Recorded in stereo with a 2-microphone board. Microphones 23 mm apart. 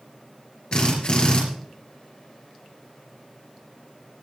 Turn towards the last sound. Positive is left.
turn(degrees=45)  # may be behind; listen again after turning